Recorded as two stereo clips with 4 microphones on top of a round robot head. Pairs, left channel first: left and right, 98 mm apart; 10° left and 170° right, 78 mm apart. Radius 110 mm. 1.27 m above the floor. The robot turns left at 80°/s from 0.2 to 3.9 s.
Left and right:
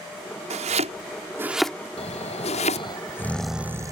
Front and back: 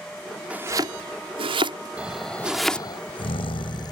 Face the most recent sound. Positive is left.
turn(degrees=-35)